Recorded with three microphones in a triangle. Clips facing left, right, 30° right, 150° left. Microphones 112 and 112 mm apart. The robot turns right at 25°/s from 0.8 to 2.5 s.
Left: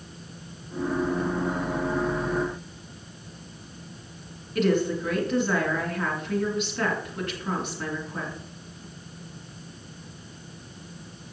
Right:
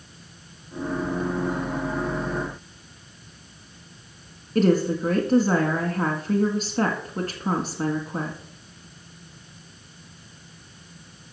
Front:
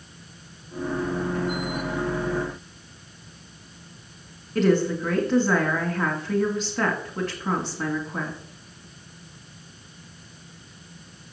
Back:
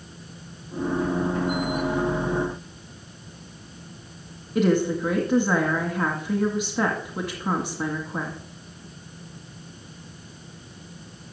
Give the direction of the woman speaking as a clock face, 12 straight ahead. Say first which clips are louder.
Right 3 dB, even; 4 o'clock.